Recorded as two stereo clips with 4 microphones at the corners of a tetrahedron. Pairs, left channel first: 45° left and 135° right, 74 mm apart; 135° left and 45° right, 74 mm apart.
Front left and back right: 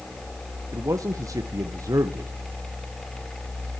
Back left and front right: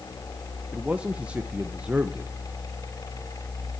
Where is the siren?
I don't hear a siren.